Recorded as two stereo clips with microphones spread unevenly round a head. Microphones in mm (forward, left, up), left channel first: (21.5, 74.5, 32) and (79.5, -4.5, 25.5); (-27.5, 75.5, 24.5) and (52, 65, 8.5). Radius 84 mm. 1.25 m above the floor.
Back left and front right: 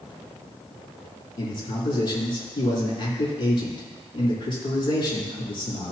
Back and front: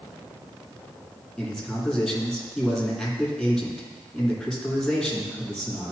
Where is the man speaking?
85° left, 3.5 m.